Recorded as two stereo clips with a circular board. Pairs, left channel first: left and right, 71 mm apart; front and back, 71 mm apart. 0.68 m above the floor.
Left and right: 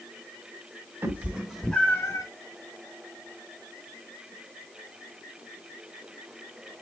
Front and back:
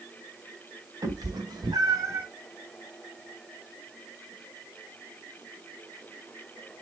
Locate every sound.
1.0 s a cat meowing: 150° right, 1.5 m; by 2.2 s 130° left, 1.2 m